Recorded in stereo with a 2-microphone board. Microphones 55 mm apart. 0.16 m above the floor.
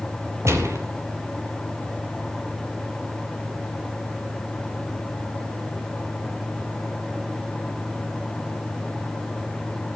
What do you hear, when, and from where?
0.5 s a gunshot: 60° right (ahead or behind), 4 m